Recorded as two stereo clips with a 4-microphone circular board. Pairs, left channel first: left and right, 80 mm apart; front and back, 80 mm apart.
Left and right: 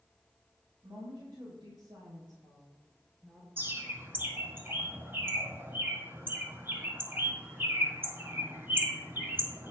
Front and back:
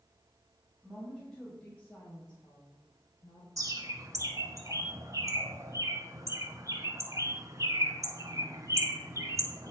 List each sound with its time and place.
0.8 s a woman speaking: 85° right, 3.5 m; by 3.5 s 10° right, 1.9 m
3.6 s a bird: 145° right, 1.6 m